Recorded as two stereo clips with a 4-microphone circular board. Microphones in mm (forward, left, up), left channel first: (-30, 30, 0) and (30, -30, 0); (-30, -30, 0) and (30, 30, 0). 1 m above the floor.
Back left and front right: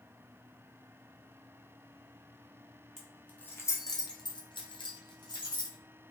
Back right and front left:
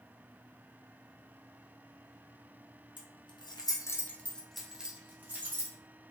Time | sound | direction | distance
3.0 | keys jangling | 140° right | 0.7 m